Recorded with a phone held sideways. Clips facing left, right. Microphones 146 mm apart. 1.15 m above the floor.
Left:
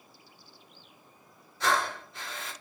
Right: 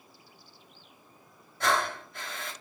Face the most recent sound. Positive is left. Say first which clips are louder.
# even
turn(degrees=-55)  # may be behind; listen again after turning